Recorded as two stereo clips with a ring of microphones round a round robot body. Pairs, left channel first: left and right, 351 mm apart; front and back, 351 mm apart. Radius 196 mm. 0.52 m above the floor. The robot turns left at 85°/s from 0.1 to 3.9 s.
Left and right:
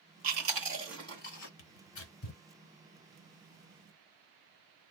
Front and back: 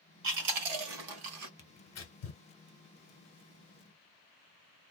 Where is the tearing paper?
80° left, 1.5 m; by 2.4 s 10° left, 1.5 m.